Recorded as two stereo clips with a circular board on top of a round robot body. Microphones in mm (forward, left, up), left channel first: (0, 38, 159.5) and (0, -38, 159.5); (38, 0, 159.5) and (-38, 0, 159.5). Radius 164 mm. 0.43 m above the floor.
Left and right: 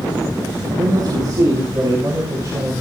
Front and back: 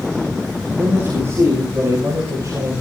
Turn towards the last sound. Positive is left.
turn(degrees=-135)